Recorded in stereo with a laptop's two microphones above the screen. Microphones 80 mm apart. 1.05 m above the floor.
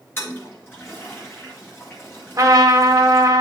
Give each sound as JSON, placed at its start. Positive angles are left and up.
{"t": 0.2, "sound": "a toilet flushing", "side_deg": 30, "distance_m": 1.6}
{"t": 2.4, "sound": "a trumpet", "side_deg": -50, "distance_m": 1.2}